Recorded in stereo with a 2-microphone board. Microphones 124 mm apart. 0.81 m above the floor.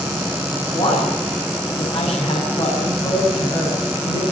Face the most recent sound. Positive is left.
turn(degrees=50)  # may be behind; listen again after turning